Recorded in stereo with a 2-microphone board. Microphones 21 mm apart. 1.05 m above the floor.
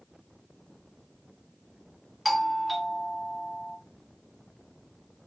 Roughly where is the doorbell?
Centre.